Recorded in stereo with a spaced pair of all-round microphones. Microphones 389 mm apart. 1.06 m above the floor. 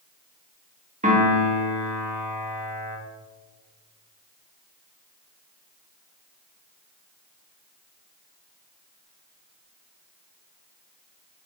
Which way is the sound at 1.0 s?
20° right (ahead or behind).